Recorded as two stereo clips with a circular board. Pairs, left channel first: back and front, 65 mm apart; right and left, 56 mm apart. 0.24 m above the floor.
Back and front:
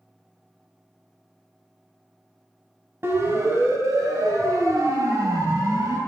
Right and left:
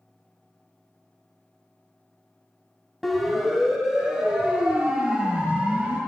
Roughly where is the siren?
Ahead.